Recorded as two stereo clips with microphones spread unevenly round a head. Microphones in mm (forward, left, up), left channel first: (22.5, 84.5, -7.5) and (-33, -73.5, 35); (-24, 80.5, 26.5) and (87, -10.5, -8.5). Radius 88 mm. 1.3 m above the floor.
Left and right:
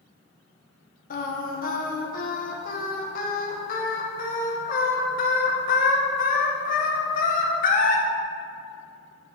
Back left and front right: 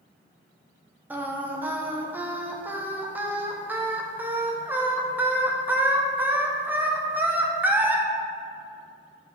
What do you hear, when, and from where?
1.1 s singing: 35° left, 0.9 m